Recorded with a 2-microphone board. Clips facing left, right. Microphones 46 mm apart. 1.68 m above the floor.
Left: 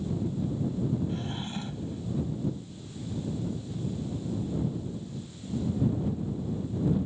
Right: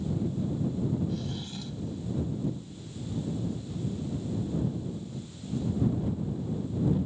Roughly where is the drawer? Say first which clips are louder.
Left 1 dB; left.